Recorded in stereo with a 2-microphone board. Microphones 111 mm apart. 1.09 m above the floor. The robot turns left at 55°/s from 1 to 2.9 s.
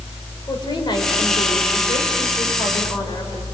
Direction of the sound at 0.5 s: 135° left.